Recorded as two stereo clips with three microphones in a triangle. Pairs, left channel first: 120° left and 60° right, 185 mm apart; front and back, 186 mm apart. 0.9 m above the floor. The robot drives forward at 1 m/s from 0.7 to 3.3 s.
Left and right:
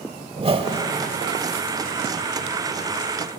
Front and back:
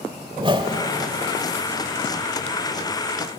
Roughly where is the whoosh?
Behind right.